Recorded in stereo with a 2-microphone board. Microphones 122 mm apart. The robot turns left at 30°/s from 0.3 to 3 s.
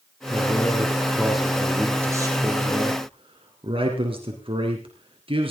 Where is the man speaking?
30° left, 3.5 m; by 5.5 s 50° right, 3.5 m.